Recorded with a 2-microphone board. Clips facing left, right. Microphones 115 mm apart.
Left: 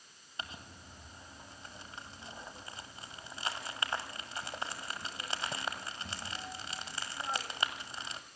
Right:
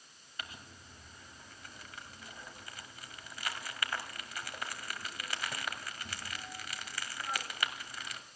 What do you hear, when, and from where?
0.4 s crumpling: 25° left (ahead or behind), 1.7 m